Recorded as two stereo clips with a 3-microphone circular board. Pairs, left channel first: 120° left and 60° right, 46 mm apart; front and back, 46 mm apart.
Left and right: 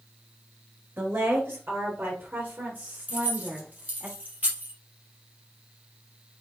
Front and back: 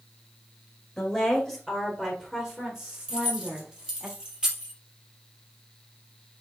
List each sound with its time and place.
1.0 s a woman speaking: 85° right, 2 m; by 4.1 s 125° right, 4 m
3.1 s keys jangling: 115° right, 3 m